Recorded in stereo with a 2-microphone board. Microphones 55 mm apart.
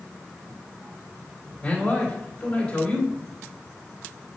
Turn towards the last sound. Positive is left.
turn(degrees=20)  # may be behind; listen again after turning